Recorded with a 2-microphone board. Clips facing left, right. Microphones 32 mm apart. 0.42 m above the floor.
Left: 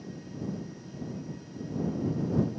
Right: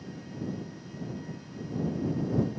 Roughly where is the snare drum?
I don't hear a snare drum.